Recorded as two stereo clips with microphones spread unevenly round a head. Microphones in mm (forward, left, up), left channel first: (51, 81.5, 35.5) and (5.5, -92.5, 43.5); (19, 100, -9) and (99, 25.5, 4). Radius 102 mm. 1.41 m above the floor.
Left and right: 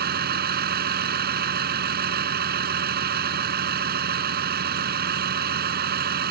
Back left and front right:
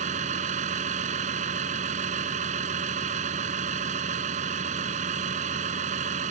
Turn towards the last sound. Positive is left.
turn(degrees=-70)